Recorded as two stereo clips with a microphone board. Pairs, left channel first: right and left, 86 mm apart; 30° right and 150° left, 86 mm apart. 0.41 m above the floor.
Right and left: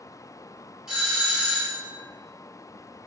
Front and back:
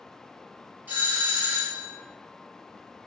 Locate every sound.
0.9 s a doorbell: 155° left, 1.2 m